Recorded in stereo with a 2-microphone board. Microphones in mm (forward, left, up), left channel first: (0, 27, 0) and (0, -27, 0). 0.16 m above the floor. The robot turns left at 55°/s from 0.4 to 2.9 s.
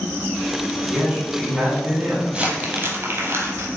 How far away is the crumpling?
About 0.8 m.